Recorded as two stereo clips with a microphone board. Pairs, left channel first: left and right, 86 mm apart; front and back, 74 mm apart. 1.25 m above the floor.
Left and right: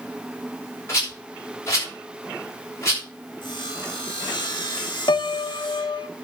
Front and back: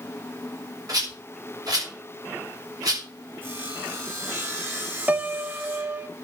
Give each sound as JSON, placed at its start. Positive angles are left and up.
{"t": 0.9, "sound": "a rattle", "azimuth_deg": 145, "distance_m": 7.5}
{"t": 3.4, "sound": "sawing", "azimuth_deg": 120, "distance_m": 4.5}
{"t": 5.1, "sound": "a piano", "azimuth_deg": 110, "distance_m": 0.6}